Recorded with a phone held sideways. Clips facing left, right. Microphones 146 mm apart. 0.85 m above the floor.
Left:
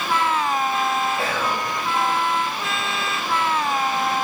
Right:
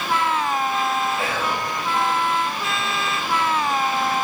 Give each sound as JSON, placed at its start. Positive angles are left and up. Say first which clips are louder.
{"t": 1.2, "sound": "whispering", "louder": "even", "side_deg": 35, "distance_m": 0.7}